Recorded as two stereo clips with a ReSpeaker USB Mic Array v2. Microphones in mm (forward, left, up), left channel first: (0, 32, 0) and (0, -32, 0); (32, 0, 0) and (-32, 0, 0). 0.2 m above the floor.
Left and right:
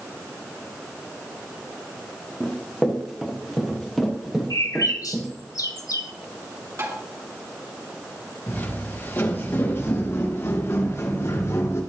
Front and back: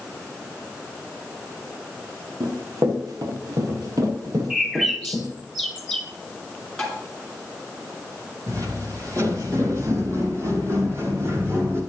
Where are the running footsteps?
175° right, 4.5 m.